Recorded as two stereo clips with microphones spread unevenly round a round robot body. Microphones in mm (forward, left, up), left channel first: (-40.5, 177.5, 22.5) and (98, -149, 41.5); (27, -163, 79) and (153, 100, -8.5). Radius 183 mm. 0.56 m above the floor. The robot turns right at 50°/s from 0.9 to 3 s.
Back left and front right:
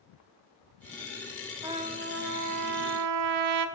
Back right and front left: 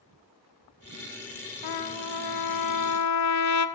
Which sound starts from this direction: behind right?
A trumpet, at 1.6 s.